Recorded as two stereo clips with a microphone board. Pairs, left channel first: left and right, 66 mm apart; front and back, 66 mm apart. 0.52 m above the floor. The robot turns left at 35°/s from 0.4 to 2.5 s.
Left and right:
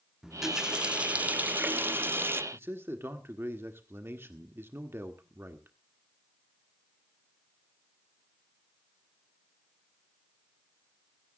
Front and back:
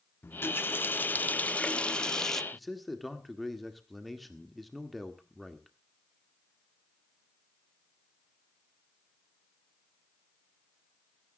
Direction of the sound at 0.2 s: 10° right.